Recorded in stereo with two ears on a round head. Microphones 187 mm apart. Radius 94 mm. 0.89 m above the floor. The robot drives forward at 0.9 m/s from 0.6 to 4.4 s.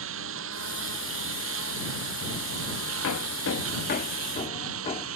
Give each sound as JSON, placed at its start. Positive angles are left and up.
{"t": 0.0, "sound": "a lawn mower", "side_deg": -70}
{"t": 3.0, "sound": "hammering", "side_deg": 80}